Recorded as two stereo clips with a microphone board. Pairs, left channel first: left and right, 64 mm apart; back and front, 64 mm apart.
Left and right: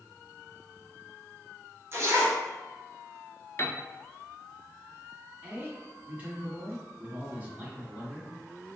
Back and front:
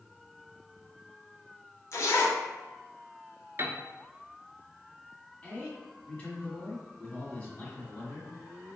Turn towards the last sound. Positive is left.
turn(degrees=-130)